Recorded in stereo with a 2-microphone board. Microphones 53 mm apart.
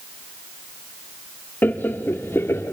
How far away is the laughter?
About 1.0 m.